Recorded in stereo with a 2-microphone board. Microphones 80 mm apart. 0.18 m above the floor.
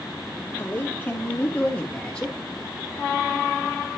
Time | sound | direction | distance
0.6 | a man speaking | 25° left (ahead or behind) | 4.5 m